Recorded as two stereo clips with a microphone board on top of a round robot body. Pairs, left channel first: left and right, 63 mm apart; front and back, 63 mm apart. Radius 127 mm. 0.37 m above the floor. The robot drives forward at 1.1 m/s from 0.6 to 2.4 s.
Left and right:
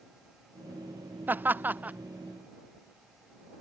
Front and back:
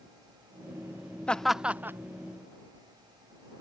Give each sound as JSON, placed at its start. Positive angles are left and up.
{"t": 1.3, "sound": "laughter", "azimuth_deg": -60}